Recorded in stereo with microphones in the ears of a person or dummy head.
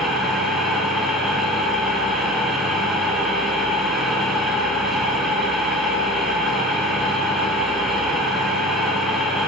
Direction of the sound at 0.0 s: Centre (ahead or behind).